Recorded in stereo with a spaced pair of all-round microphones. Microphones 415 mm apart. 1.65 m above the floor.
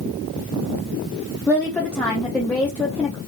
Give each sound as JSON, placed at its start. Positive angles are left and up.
{"t": 1.5, "sound": "a woman speaking", "side_deg": 5, "distance_m": 0.5}